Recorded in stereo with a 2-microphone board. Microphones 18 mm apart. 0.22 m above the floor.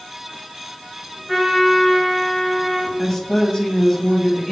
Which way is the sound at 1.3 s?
10° right (ahead or behind).